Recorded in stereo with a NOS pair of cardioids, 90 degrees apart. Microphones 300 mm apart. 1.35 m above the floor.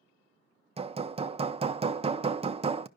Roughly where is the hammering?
Ahead.